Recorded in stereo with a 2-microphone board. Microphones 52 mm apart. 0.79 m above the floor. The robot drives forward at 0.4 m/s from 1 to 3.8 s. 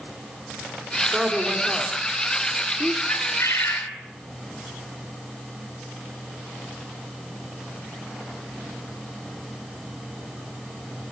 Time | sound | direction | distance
1.1 | a woman speaking | 15° right (ahead or behind) | 3 m
3.1 | a bird | 80° left | 5 m